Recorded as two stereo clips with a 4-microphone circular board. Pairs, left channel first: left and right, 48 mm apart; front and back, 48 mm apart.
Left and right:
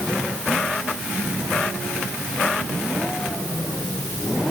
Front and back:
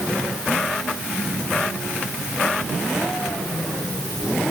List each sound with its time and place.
Only background noise.